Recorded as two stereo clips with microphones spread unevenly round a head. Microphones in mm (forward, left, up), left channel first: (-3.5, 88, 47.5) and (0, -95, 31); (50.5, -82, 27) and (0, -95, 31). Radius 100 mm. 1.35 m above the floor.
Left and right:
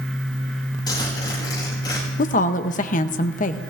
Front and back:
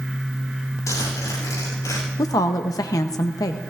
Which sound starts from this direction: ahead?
A zipper, at 0.9 s.